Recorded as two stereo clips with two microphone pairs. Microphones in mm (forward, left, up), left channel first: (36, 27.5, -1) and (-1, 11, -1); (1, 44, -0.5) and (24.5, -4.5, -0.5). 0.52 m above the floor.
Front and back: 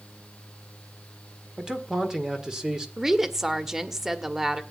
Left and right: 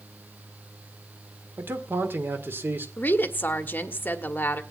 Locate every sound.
1.6 s a man speaking: 90° right, 1.8 m
3.0 s a woman speaking: 130° left, 1.1 m